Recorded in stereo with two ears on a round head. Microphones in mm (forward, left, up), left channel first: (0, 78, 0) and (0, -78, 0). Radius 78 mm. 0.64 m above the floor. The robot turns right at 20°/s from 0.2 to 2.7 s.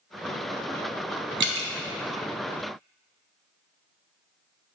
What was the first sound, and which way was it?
Dripping, 70° right (ahead or behind).